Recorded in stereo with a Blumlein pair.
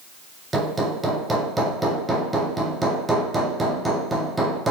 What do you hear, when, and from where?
0.5 s hammering: 10° right, 1.9 m